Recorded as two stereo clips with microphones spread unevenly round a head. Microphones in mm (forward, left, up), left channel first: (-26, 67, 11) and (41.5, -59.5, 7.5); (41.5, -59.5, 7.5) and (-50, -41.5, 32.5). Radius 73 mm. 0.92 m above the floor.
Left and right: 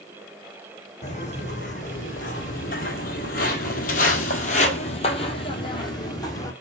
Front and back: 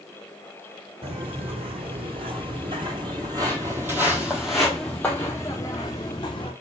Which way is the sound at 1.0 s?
160° left.